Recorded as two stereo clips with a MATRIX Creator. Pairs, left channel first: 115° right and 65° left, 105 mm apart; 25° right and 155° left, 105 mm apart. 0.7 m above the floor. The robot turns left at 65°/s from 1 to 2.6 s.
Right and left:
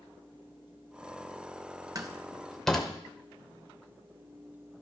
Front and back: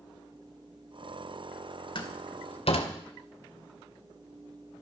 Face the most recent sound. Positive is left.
turn(degrees=-30)